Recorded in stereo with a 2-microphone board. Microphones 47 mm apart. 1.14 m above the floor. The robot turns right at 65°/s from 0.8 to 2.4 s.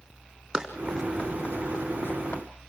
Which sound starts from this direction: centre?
Running footsteps, at 0.5 s.